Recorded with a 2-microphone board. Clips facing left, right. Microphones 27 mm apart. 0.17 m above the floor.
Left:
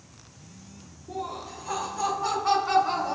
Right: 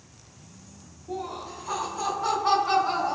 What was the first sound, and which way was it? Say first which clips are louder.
Laughter: right 1 dB; 10° right (ahead or behind).